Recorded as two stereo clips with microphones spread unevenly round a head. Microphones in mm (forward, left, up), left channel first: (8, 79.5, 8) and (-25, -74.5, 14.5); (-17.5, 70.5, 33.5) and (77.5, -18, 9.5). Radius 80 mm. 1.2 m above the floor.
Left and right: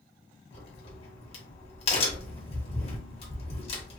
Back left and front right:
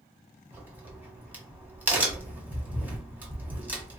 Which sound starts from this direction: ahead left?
A crack, at 0.5 s.